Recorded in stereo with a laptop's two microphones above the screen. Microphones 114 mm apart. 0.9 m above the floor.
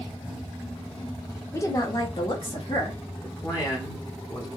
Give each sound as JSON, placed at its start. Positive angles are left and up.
{"t": 1.5, "sound": "a woman speaking", "side_deg": 20, "distance_m": 0.7}
{"t": 3.2, "sound": "a man speaking", "side_deg": 30, "distance_m": 0.9}